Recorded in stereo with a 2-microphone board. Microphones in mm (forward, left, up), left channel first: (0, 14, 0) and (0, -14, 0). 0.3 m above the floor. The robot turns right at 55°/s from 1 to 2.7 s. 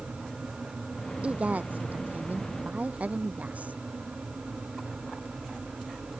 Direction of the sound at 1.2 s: 140° right.